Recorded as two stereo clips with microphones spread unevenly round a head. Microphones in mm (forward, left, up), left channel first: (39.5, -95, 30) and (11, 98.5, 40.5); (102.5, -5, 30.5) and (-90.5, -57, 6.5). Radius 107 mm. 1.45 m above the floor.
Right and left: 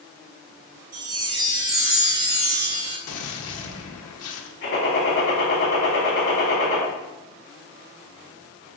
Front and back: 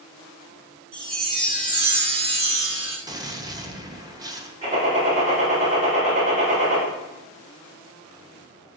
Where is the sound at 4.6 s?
110° right, 5 m.